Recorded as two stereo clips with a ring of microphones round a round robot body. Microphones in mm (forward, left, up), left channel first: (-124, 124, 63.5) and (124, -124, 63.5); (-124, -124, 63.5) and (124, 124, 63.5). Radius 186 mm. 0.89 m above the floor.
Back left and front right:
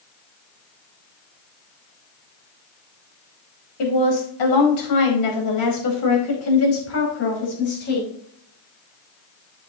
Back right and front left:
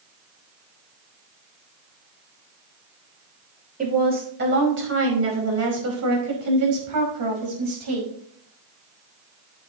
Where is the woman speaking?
115° left, 5 m; by 8.1 s 70° left, 5.5 m.